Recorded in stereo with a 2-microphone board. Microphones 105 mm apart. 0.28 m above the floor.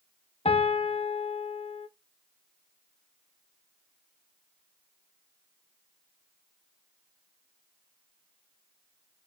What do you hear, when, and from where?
0.5 s a piano: 65° left (ahead or behind), 0.5 m